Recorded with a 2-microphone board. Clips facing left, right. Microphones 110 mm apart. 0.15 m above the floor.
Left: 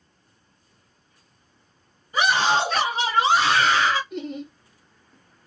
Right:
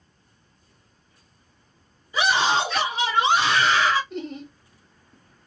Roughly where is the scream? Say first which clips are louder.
Left 1 dB; left.